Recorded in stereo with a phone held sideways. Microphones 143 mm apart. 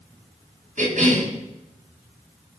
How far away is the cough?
About 7.5 m.